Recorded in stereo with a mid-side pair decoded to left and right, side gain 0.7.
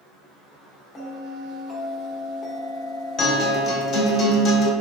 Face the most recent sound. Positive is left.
turn(degrees=40)